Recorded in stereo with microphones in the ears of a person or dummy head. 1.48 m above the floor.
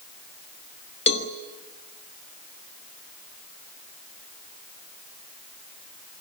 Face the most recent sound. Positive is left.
turn(degrees=25)  # may be behind; listen again after turning